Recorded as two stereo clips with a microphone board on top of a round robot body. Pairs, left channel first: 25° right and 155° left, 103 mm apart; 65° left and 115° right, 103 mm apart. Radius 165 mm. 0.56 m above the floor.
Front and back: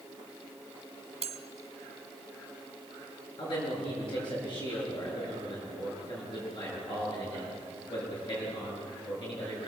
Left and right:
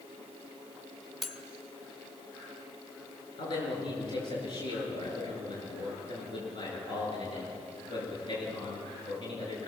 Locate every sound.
1.2 s cutlery clinking: 160° left, 1.7 m
3.4 s a man speaking: 25° left, 10 m